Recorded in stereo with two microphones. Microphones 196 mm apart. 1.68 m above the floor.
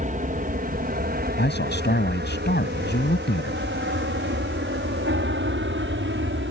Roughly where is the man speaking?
Left.